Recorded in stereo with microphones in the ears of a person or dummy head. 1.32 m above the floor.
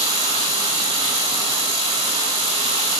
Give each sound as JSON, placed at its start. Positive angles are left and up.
{"t": 0.0, "sound": "running water", "side_deg": -30, "distance_m": 7.0}